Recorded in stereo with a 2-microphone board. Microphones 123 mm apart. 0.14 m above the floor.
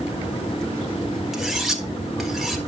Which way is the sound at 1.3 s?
Centre (ahead or behind).